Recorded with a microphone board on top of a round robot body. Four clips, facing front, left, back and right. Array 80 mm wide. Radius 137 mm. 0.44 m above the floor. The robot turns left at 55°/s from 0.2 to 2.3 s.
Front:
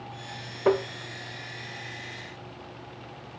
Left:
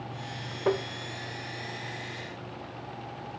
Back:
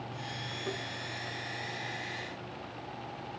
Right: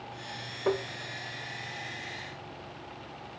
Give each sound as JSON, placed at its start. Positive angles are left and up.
{"t": 0.7, "sound": "tapping", "azimuth_deg": 10}